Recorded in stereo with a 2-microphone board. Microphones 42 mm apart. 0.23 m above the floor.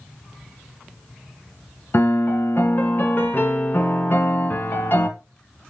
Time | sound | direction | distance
1.9 | a piano | 55° left (ahead or behind) | 1.4 m